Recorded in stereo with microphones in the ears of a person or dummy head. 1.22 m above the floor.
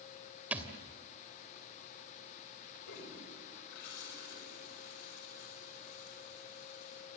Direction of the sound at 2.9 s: 65° left (ahead or behind).